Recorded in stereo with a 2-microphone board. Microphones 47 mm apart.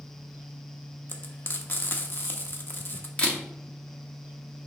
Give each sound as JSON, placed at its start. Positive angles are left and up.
{"t": 1.1, "sound": "frying", "side_deg": 45, "distance_m": 0.9}
{"t": 3.2, "sound": "a camera shutter", "side_deg": 20, "distance_m": 1.3}